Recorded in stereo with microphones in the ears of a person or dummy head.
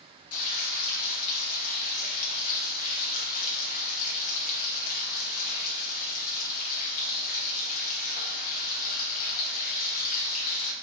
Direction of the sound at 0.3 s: 50° left (ahead or behind).